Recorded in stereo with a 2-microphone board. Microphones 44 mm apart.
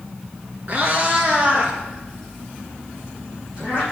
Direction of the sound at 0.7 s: 40° right (ahead or behind).